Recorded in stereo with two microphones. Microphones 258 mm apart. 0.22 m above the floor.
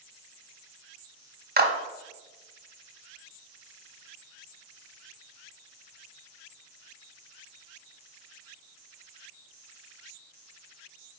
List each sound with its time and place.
1.6 s a clap: 35° right (ahead or behind), 1.3 m